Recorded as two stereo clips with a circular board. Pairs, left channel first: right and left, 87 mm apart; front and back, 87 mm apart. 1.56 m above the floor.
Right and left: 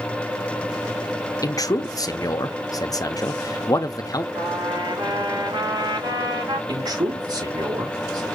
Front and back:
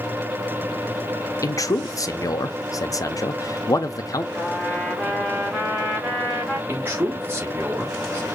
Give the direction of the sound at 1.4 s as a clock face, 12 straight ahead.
2 o'clock.